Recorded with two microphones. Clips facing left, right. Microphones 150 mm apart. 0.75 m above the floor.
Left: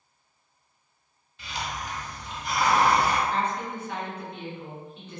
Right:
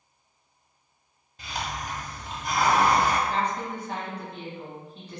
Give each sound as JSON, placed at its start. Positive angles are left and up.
{"t": 1.4, "sound": "a hiss", "side_deg": -40, "distance_m": 0.7}
{"t": 3.3, "sound": "a woman speaking", "side_deg": -35, "distance_m": 0.8}